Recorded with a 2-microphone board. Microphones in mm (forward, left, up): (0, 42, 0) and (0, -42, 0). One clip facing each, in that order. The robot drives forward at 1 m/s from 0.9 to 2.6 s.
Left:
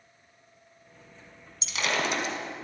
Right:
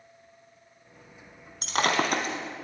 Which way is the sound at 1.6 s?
55° right (ahead or behind).